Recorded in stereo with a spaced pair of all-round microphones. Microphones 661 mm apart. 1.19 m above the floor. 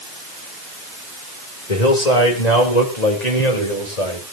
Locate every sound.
1.7 s a man speaking: 90° left, 4 m; by 4.2 s 80° left, 5.5 m